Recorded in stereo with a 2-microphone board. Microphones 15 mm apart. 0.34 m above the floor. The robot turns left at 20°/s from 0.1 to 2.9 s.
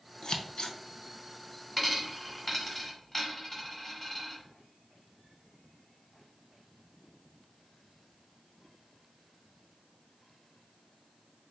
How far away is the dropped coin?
About 1.4 m.